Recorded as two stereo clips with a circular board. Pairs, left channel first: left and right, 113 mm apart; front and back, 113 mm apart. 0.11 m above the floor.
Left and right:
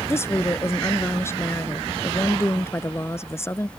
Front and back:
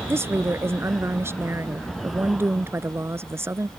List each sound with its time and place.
0.1 s a woman speaking: 135° left